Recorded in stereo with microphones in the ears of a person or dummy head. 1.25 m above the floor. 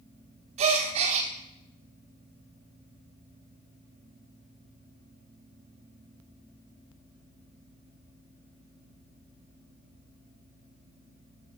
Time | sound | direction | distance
0.6 | a gasp | 35° right (ahead or behind) | 1.1 m